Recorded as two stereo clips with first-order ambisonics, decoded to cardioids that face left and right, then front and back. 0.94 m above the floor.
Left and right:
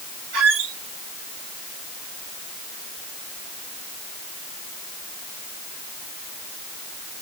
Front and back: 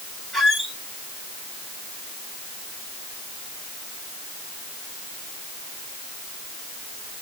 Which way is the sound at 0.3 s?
85° right.